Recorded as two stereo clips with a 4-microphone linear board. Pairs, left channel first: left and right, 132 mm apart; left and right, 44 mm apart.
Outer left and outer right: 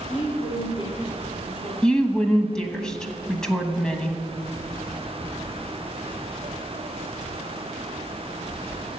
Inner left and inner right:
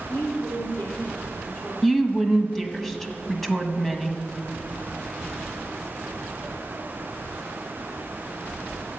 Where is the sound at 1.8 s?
5° left (ahead or behind), 1.1 m.